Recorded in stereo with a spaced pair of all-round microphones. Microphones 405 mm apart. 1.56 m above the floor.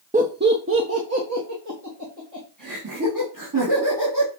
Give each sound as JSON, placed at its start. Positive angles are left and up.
{"t": 0.1, "sound": "laughter", "side_deg": -20, "distance_m": 0.8}